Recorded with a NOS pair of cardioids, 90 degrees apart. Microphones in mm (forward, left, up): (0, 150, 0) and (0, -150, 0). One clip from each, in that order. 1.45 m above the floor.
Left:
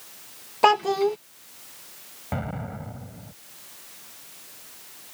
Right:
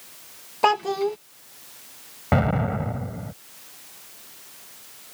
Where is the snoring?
I don't hear snoring.